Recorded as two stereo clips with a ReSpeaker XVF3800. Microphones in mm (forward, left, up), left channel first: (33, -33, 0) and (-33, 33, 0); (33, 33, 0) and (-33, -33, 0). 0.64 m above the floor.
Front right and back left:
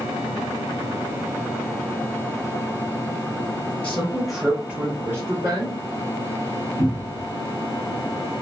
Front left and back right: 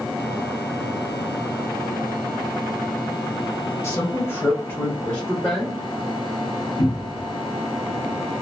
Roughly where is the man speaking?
Ahead.